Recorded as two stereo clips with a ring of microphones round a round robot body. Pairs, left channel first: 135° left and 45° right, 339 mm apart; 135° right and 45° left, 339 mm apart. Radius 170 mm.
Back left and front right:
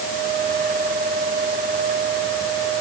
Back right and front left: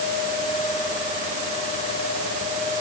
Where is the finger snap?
I don't hear a finger snap.